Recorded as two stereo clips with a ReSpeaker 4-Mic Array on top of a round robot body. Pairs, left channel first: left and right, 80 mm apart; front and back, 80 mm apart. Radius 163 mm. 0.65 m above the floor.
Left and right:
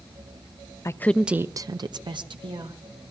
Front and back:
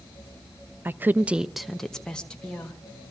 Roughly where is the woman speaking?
Behind left.